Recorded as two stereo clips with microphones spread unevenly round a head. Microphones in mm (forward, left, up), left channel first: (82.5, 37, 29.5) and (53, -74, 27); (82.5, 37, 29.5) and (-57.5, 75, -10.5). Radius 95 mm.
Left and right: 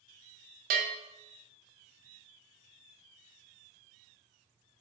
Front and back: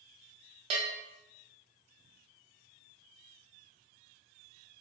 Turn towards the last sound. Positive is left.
turn(degrees=-130)